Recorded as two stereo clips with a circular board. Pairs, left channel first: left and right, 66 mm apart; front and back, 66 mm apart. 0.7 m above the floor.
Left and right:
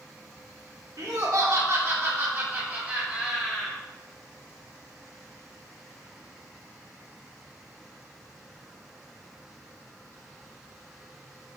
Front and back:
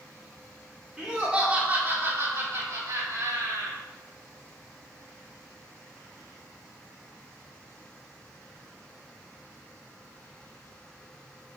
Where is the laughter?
105° right, 2.5 m; by 3.8 s 175° right, 3 m.